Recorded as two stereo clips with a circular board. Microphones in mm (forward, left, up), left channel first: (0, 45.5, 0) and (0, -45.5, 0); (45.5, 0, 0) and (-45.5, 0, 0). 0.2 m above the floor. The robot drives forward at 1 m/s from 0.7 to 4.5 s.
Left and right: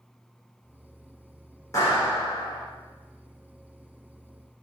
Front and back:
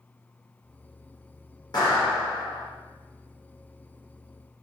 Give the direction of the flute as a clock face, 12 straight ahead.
No flute in this recording.